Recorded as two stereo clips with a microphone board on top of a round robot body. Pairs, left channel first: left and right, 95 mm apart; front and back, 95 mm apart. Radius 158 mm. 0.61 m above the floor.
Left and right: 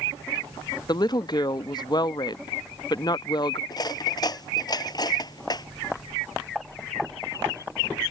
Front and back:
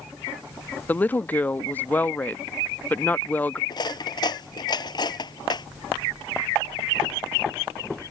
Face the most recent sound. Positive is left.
turn(degrees=45)